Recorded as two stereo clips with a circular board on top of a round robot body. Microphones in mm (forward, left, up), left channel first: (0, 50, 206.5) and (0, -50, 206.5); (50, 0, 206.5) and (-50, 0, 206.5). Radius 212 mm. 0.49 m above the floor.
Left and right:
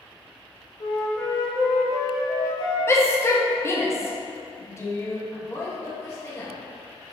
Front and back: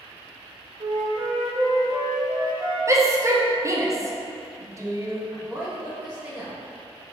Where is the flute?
140° left, 0.6 m.